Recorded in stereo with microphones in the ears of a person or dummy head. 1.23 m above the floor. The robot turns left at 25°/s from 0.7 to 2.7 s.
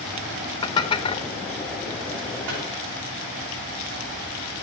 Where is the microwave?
70° right (ahead or behind), 3 m; by 2.6 s 65° right (ahead or behind), 3 m.